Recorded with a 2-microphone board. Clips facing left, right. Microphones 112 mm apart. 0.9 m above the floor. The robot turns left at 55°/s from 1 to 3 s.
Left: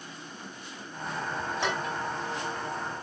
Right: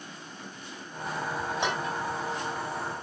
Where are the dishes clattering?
15° right (ahead or behind), 3.5 m; by 1.9 s 35° right (ahead or behind), 3.5 m.